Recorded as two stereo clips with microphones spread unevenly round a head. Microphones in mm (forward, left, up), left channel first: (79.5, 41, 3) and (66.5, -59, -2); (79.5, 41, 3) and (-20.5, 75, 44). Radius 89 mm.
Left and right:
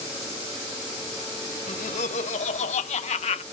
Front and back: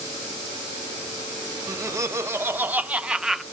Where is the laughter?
105° left; by 3.4 s 75° left.